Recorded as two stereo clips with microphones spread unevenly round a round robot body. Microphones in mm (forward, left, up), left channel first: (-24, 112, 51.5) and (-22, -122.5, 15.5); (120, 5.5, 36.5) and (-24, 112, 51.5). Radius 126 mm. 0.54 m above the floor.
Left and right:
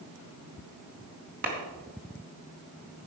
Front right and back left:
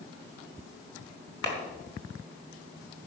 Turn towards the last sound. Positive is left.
turn(degrees=-40)